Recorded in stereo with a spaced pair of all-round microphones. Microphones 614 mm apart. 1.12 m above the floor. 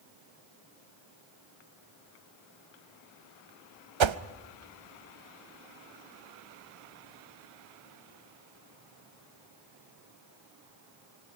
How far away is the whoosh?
About 0.6 m.